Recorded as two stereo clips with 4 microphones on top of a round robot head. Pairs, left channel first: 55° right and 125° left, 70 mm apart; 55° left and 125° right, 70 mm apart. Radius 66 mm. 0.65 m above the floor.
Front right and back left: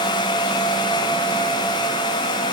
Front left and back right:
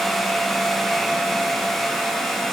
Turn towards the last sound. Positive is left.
No sound to turn to.